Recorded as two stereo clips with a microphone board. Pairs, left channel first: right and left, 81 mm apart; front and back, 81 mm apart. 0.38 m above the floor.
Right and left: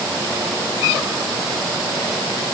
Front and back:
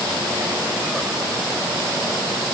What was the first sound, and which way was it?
Only background noise.